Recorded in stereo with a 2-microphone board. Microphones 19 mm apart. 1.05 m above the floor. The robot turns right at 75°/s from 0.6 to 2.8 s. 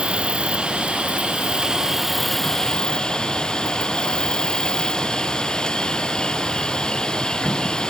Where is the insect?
115° right; by 7.9 s 50° left.